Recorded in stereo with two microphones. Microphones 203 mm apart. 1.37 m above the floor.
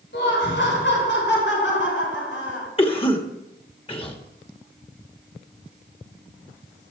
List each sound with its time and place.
0.1 s laughter: 60° left (ahead or behind), 5 m; by 2.7 s 75° left (ahead or behind), 5.5 m
2.8 s a cough: 25° left (ahead or behind), 2 m